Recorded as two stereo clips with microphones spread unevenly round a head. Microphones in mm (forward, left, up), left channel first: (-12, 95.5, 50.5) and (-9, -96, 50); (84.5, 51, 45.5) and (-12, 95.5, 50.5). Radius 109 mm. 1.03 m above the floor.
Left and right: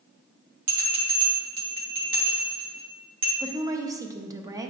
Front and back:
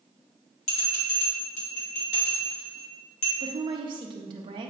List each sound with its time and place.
0.7 s a bell: 40° right, 1.5 m
3.4 s a woman speaking: 160° right, 0.7 m